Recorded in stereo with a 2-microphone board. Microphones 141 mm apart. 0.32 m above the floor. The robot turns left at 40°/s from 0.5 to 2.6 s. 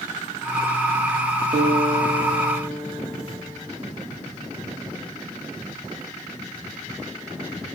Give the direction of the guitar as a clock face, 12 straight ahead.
4 o'clock.